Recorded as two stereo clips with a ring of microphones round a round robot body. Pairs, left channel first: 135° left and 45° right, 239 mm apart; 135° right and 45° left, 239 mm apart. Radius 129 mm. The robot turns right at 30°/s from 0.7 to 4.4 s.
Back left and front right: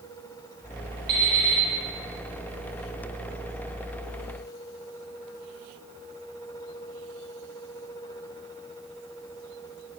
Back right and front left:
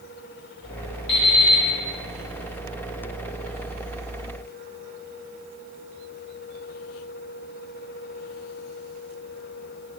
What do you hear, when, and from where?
1.1 s an alarm clock: 95° right, 1.1 m; by 1.6 s 80° right, 1.1 m